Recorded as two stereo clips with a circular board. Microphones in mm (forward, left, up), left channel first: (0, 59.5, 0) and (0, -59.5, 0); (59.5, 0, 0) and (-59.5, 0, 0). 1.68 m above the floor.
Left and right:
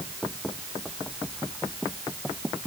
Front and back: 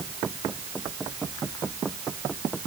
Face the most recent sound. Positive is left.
No sound to turn to.